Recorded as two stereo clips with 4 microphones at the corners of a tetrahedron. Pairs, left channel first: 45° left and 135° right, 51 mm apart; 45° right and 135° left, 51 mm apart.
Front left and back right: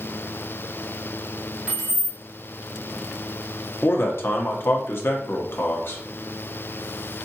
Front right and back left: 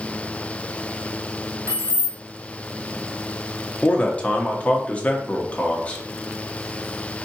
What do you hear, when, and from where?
1.7 s keys jangling: 155° left, 1.7 m
3.8 s a man speaking: 15° left, 1.0 m